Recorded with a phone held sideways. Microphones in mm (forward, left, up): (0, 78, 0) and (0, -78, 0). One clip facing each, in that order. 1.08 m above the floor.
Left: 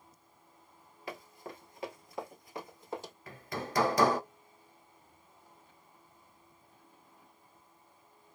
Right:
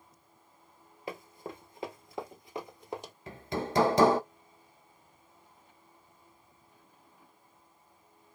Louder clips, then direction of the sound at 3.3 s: Right 6 dB; 25° right (ahead or behind).